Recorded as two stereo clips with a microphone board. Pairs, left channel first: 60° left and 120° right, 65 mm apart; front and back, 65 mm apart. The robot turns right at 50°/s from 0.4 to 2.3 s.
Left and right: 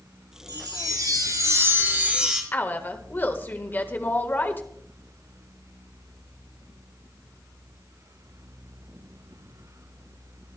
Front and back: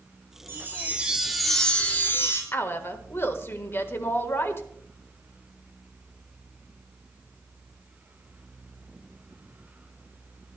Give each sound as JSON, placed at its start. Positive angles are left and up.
{"t": 0.5, "sound": "a chime", "azimuth_deg": -135, "distance_m": 4.0}
{"t": 2.5, "sound": "a woman speaking", "azimuth_deg": 20, "distance_m": 1.4}